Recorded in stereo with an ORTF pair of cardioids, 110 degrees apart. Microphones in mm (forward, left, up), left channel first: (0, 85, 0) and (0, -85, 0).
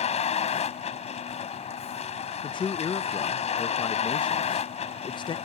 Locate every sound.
0.0 s a vehicle: 45° left
2.4 s a man speaking: 30° left